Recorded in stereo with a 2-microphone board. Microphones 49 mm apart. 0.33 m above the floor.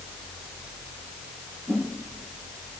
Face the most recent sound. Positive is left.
turn(degrees=-45)  # may be behind; listen again after turning